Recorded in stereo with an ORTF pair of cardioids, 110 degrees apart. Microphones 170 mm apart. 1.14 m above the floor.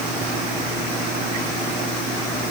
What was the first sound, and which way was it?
Only background noise.